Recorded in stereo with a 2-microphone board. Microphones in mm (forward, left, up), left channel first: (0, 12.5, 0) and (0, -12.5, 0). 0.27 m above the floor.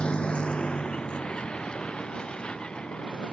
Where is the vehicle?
50° left (ahead or behind); by 3.3 s 45° left (ahead or behind).